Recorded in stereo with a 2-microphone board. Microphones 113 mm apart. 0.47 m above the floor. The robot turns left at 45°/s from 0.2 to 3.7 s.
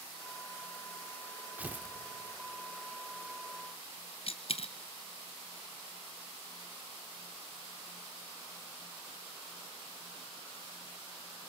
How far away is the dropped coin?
About 0.7 m.